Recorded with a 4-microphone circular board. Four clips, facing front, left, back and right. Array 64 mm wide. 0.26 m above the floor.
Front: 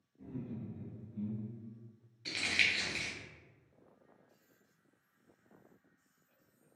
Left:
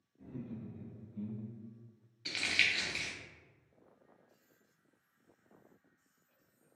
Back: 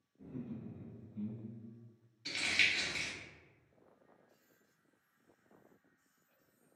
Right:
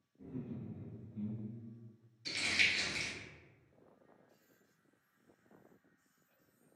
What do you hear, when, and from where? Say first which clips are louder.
0.2 s laughter: even, front 2 dB; 35° left, 1.6 m; by 1.7 s straight behind, 1.2 m
2.2 s crumpling: left 1 dB, front 1 dB; 70° left, 0.8 m